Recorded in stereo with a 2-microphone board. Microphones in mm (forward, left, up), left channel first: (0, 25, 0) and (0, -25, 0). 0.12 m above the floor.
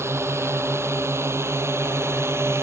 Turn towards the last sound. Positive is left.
turn(degrees=-65)  # may be behind; listen again after turning